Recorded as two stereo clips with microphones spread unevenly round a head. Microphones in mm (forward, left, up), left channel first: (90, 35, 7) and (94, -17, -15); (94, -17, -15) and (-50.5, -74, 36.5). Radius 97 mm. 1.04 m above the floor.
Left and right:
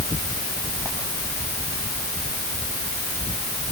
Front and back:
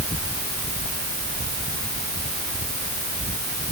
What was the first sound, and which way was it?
Only background noise.